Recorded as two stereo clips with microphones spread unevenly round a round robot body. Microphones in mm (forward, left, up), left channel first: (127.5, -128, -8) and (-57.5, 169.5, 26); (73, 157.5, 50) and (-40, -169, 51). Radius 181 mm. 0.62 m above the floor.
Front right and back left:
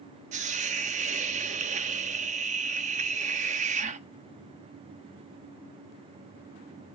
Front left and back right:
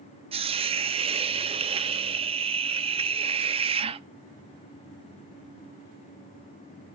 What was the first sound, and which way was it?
A hiss, 175° right.